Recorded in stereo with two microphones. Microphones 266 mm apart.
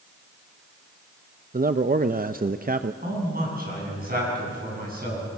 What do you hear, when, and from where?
1.5 s a man speaking: 35° right (ahead or behind), 0.5 m
3.0 s a man speaking: 35° right (ahead or behind), 8 m